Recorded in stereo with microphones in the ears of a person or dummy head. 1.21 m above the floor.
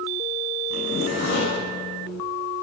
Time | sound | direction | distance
0.7 | a zipper | 65° left (ahead or behind) | 9 m